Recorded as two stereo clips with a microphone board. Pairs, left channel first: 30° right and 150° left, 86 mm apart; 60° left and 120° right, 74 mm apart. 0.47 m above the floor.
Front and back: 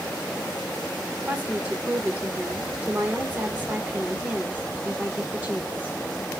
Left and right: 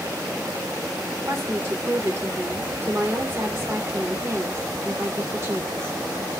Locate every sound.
1.2 s a woman speaking: 150° right, 1.2 m